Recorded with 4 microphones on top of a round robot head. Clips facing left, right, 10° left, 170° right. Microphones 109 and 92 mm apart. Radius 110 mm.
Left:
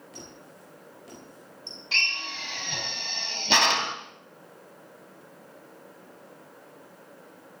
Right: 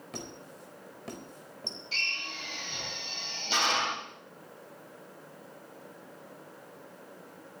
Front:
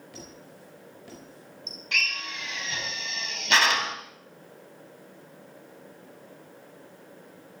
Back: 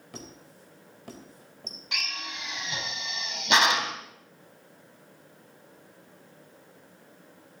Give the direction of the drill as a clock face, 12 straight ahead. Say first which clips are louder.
Left 8 dB, front 5 dB; 8 o'clock.